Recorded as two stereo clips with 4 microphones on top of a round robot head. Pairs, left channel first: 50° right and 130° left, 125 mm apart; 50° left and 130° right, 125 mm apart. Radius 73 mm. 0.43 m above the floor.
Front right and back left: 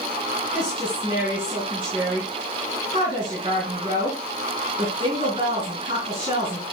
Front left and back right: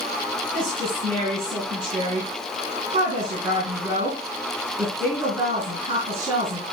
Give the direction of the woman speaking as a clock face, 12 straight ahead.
6 o'clock.